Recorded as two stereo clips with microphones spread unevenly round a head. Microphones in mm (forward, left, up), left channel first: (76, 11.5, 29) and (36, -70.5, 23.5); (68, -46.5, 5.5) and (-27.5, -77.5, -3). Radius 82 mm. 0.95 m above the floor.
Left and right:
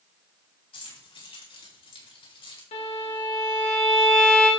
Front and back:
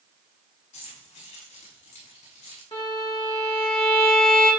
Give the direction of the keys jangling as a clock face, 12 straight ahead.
10 o'clock.